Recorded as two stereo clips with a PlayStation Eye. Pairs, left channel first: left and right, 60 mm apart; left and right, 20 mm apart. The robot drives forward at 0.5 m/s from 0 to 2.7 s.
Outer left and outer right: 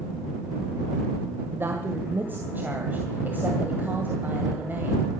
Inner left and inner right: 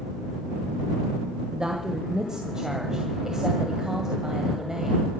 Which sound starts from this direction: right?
A woman speaking, at 1.5 s.